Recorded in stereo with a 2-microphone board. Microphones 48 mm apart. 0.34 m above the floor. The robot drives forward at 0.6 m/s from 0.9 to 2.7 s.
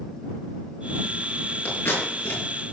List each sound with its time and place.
1.6 s scissors: 55° left (ahead or behind), 5 m; by 2.4 s 50° left (ahead or behind), 5.5 m